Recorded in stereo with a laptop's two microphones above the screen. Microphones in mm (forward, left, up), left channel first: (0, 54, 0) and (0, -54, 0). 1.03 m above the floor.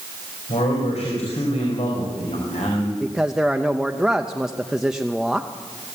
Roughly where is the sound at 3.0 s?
Centre.